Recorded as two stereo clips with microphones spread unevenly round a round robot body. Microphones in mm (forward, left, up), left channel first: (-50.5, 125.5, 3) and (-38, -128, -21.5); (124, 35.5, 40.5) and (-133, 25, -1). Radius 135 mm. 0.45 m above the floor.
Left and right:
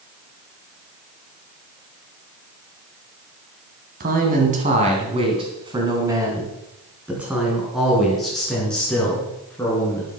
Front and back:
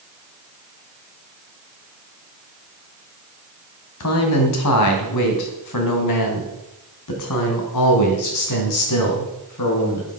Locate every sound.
4.0 s a man speaking: 30° right, 2.5 m; by 10.2 s 10° left, 5 m